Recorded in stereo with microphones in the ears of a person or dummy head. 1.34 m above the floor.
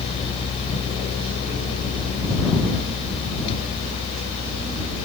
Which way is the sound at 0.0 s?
30° left (ahead or behind).